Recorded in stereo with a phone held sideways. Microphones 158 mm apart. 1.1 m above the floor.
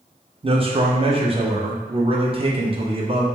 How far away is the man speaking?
About 0.7 m.